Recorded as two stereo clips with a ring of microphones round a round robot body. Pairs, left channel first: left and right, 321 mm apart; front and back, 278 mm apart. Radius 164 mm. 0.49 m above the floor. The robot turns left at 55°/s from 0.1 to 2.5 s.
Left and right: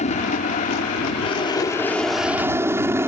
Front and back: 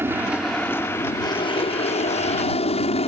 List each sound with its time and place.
0.0 s an aircraft: 110° left; by 3.1 s 20° right